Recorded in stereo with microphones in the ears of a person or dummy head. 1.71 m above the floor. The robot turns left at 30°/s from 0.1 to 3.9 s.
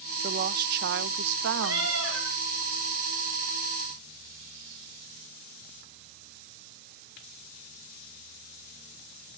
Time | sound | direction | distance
0.2 | a woman speaking | 50° right | 0.5 m
1.6 | a cat meowing | 80° right | 8 m